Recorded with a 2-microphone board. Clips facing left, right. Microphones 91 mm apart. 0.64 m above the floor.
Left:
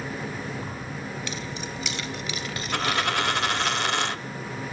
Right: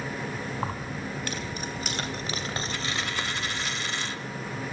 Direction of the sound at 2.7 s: 70° left (ahead or behind).